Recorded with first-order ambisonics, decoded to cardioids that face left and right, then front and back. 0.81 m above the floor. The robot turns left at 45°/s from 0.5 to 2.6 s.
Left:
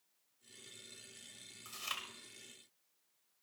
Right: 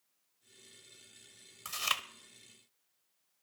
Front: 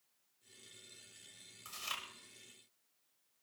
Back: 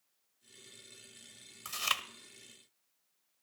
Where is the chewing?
125° right, 0.9 m; by 2.0 s 145° right, 0.9 m.